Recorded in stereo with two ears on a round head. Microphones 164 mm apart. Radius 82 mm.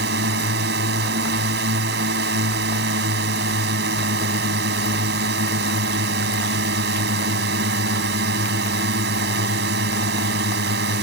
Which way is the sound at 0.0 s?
60° right (ahead or behind).